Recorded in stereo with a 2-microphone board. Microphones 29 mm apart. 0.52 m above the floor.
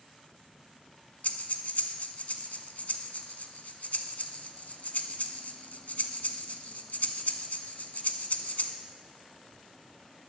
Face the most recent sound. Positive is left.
turn(degrees=65)  # may be behind; listen again after turning